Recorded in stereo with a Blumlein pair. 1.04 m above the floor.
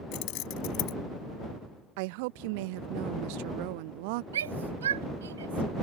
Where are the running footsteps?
I don't hear running footsteps.